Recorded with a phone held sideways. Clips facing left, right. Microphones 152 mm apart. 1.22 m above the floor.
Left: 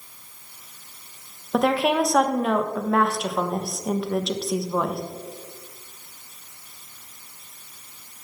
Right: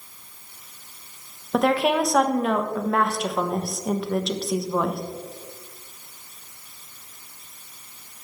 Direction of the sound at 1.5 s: Centre (ahead or behind).